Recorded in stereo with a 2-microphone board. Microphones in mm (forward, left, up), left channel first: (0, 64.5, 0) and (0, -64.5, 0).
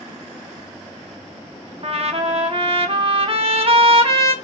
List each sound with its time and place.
1.8 s a trumpet: 45° right (ahead or behind), 0.5 m